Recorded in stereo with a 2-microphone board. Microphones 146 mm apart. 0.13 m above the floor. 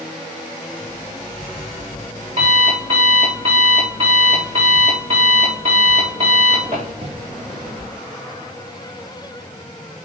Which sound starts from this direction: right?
An alarm clock, at 0.8 s.